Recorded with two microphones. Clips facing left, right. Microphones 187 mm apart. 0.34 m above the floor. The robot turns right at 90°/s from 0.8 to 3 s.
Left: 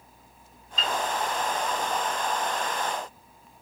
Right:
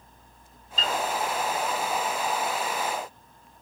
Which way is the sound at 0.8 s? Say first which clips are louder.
Right 1 dB; 40° right (ahead or behind).